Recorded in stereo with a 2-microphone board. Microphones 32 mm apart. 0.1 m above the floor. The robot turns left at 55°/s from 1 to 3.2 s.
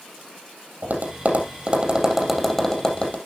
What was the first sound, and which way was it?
Tapping, 60° right (ahead or behind).